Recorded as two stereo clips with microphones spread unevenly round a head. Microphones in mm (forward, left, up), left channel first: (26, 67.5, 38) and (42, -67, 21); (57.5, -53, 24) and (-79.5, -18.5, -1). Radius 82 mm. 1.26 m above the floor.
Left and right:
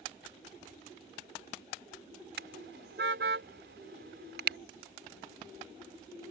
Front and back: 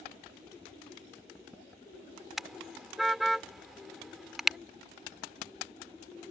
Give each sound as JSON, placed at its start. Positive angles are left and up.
{"t": 2.4, "sound": "a car horn", "azimuth_deg": -100}